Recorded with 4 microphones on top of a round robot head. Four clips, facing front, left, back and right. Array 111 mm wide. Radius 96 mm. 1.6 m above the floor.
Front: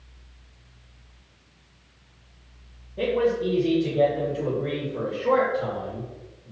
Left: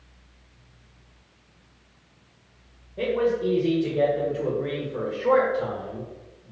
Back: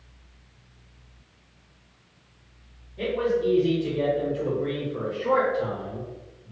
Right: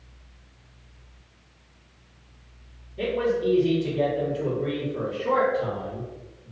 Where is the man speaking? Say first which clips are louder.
Left 1 dB, front 2 dB; 50° left, 1.7 m; by 6.5 s 125° left, 1.8 m.